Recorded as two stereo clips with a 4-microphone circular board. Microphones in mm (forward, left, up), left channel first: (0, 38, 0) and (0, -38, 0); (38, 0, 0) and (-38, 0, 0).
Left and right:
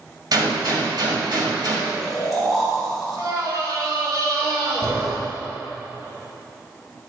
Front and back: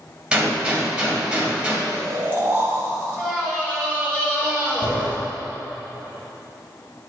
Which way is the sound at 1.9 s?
Straight behind.